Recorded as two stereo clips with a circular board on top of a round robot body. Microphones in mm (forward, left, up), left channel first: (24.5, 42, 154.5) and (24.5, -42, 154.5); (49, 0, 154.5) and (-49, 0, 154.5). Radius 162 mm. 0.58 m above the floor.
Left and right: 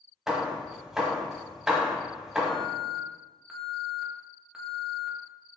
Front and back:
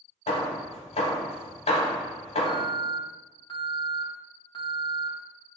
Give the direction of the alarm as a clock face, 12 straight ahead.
1 o'clock.